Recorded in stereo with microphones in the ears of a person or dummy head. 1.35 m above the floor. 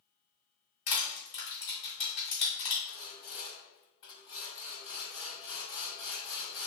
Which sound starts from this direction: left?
Crushing, at 0.9 s.